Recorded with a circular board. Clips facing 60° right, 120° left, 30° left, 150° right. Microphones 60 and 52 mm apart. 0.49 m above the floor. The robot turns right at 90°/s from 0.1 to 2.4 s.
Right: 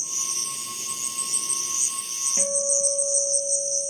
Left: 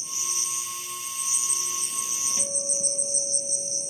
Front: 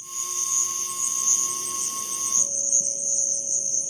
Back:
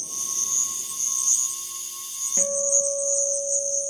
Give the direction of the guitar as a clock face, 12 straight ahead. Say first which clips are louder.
Right 10 dB, back 9 dB; 4 o'clock.